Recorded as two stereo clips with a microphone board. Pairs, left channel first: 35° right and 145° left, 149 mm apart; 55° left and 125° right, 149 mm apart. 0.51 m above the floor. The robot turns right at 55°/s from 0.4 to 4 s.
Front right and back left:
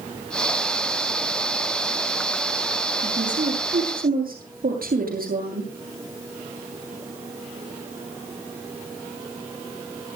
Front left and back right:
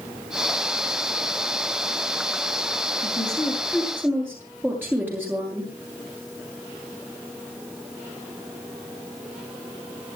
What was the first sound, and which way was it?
A woman speaking, 105° left.